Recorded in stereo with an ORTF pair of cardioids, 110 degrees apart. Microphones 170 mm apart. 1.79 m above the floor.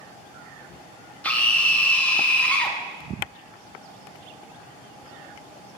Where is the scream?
10° left, 1.1 m.